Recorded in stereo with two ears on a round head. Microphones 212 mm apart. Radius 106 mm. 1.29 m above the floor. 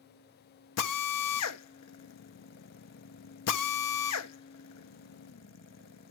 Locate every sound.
0.8 s a drill: 75° left (ahead or behind), 1.1 m